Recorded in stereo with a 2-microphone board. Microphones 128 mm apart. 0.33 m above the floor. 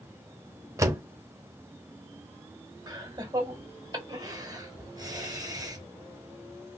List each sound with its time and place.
0.8 s a door slam: 25° right (ahead or behind), 0.9 m
2.9 s laughter: 30° right (ahead or behind), 2 m